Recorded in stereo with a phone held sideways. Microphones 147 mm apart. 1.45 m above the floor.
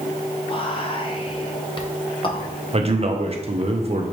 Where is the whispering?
35° left (ahead or behind), 0.8 m.